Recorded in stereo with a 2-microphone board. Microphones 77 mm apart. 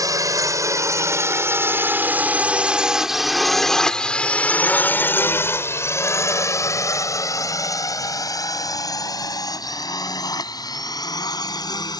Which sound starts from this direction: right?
A drone, at 0.0 s.